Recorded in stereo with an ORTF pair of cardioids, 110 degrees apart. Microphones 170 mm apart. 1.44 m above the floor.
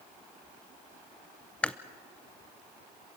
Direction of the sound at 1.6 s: 5° left.